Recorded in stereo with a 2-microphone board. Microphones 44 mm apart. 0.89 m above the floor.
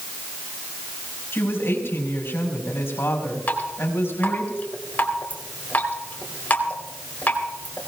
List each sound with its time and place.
1.3 s a woman speaking: 60° left (ahead or behind), 5 m
3.5 s dripping: 35° left (ahead or behind), 3.5 m